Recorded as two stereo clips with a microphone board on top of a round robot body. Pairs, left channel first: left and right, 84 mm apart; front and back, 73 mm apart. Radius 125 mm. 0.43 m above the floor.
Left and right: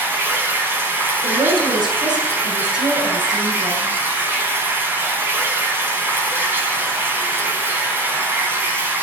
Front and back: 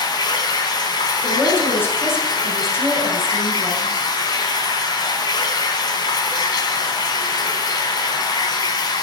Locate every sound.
0.0 s running water: 25° right, 4.5 m
1.2 s a woman speaking: 60° right, 7 m